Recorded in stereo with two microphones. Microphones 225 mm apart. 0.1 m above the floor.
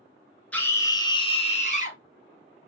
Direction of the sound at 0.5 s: 5° left (ahead or behind).